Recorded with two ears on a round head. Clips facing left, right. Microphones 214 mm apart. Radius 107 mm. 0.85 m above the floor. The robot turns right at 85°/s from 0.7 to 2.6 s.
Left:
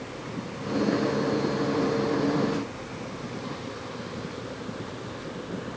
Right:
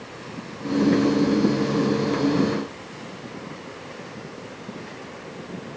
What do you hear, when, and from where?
Only background noise.